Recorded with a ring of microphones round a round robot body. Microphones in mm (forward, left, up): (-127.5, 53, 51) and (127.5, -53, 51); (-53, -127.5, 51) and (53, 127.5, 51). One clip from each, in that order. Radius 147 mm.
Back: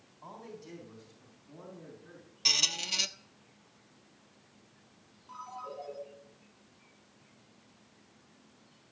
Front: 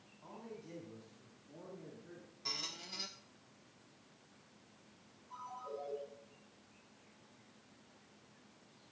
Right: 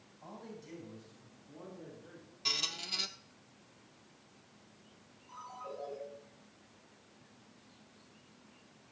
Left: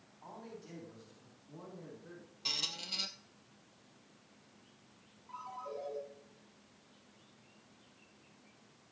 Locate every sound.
0.2 s a man speaking: 130° left, 3 m; by 2.3 s 105° left, 5 m
2.5 s a squeak: 155° left, 0.6 m
5.3 s a ringtone: 140° left, 7 m